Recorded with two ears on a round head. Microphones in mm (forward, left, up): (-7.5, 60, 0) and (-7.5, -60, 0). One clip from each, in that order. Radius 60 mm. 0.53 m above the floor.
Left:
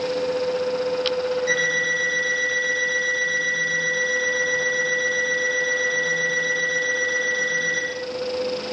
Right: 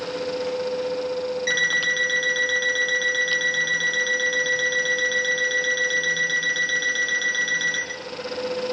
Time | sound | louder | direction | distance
1.5 | an alarm clock | right 2 dB | 60° right (ahead or behind) | 7.5 m